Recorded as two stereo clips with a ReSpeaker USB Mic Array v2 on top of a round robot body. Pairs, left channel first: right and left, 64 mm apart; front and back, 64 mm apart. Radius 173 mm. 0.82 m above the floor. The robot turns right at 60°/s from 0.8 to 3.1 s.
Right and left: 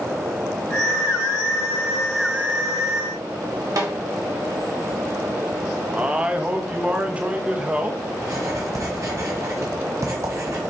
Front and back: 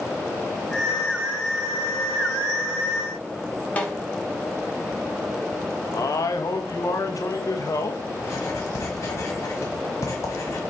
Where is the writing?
45° left, 1.2 m.